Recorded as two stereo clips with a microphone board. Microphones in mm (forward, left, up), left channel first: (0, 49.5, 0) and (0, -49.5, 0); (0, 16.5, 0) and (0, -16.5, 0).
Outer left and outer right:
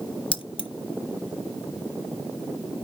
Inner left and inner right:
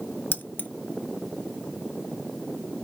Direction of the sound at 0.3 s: 70° left (ahead or behind).